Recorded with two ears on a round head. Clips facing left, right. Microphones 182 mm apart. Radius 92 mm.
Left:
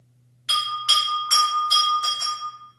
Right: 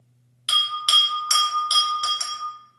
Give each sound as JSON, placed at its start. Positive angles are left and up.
{"t": 0.5, "sound": "a bell", "side_deg": -45, "distance_m": 1.3}